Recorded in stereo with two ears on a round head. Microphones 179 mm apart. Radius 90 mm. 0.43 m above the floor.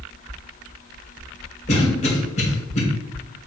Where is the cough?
35° left (ahead or behind), 1.3 m.